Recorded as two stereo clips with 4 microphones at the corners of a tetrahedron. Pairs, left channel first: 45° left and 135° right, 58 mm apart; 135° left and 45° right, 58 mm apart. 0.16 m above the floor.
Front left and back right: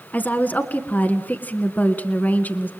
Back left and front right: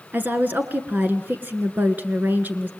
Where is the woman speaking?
5° right, 1.9 m.